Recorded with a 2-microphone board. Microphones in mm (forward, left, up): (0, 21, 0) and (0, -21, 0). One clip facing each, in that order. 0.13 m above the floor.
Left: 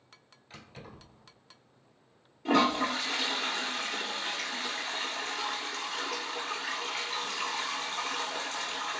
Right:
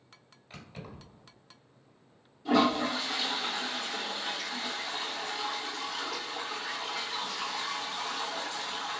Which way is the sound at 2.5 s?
55° left (ahead or behind).